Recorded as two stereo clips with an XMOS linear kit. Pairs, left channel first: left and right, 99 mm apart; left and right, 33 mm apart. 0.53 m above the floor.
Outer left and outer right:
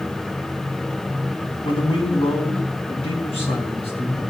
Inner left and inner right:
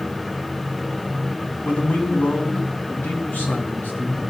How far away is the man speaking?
About 4.5 m.